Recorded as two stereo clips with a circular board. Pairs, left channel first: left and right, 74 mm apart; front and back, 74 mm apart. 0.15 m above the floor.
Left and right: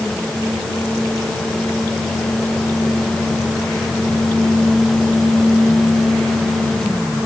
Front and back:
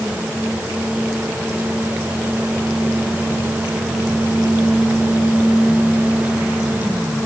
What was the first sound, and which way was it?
Only background noise.